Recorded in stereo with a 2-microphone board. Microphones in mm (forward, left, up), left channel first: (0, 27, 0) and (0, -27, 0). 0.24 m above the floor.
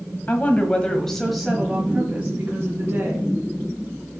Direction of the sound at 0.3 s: 30° left (ahead or behind).